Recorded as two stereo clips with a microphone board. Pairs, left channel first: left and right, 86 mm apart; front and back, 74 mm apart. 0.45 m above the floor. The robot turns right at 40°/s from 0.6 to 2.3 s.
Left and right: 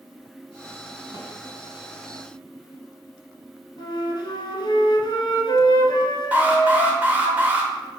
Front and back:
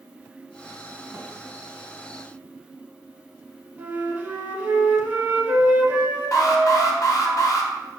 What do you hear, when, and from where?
1.1 s a snare drum: 125° right, 1.8 m; by 1.3 s 120° right, 1.8 m
3.8 s a flute: 110° left, 0.8 m
6.3 s an alarm: 25° right, 0.8 m